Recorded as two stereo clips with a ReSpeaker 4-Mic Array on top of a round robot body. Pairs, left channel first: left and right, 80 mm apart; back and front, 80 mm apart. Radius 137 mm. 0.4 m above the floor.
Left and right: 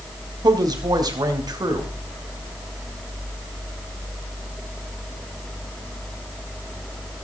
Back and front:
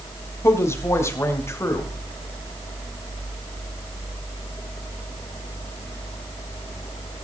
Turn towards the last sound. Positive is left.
turn(degrees=-125)